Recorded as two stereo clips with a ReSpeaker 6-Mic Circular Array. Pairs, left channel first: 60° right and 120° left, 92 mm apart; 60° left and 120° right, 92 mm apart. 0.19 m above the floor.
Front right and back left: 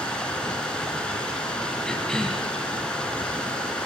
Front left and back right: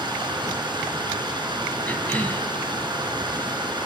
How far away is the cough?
About 1.0 m.